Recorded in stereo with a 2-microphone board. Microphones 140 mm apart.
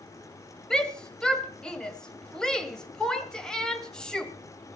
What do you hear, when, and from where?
0.7 s a shout: 5° left (ahead or behind), 1.5 m